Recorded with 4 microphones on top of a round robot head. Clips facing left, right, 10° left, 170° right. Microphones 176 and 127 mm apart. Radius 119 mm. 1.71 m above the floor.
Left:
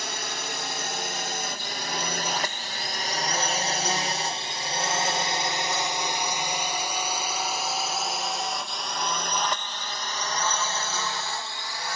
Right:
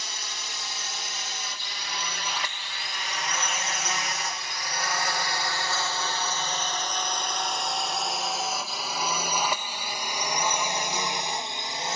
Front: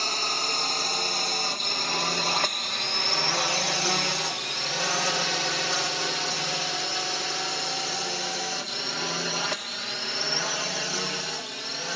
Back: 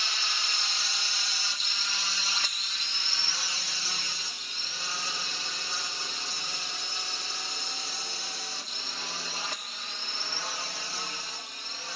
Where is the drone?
55° left; by 12.0 s 20° right.